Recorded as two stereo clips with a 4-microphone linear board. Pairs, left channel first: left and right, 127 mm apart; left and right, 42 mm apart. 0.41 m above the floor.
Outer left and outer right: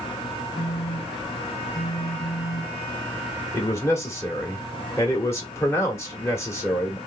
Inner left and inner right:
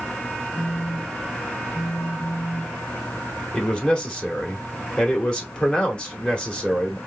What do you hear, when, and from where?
0.6 s a phone buzzing: 5° left (ahead or behind), 1.9 m
3.5 s a man speaking: 20° left (ahead or behind), 1.1 m